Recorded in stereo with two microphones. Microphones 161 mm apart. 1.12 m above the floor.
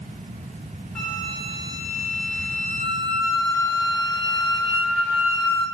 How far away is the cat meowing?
I don't hear a cat meowing.